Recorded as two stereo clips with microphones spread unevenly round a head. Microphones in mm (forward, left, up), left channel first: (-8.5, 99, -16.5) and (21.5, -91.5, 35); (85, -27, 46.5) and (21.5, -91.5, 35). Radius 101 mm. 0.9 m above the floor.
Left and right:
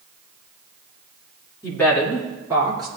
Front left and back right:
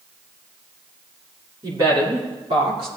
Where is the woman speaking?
170° left, 2.5 m; by 2.9 s 155° right, 3.5 m.